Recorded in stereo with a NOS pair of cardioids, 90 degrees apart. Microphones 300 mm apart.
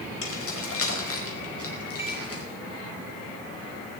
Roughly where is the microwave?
Ahead.